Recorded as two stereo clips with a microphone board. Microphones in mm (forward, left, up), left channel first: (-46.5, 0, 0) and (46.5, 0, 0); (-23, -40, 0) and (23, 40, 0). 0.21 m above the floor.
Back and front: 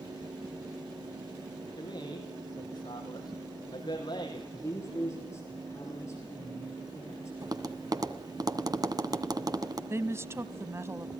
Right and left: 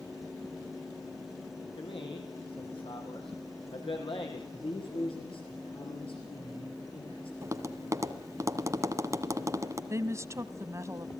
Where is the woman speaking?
35° left, 1.3 m.